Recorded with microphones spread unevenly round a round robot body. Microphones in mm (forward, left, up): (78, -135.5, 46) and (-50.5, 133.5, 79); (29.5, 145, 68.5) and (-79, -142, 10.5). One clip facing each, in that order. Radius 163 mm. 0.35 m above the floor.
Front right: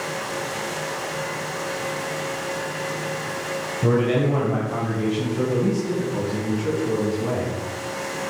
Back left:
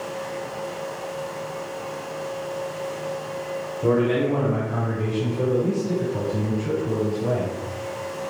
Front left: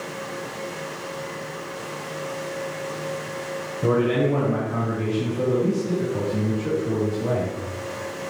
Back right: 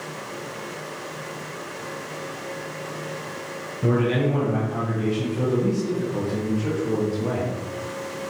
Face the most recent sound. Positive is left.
turn(degrees=-45)